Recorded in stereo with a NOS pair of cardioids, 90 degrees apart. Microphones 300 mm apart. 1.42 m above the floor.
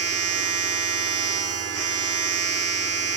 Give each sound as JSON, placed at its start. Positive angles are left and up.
{"t": 0.0, "sound": "a machine running", "azimuth_deg": -55, "distance_m": 2.0}